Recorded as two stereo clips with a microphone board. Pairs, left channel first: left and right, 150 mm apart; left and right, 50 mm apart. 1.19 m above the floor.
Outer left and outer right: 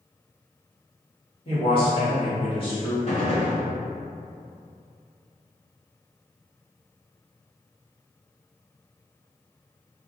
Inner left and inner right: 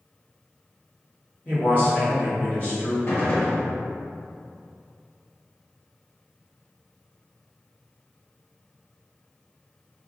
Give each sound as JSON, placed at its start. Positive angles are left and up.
{"t": 1.4, "sound": "a man speaking", "side_deg": 35, "distance_m": 1.4}
{"t": 3.1, "sound": "a gunshot", "side_deg": 45, "distance_m": 1.6}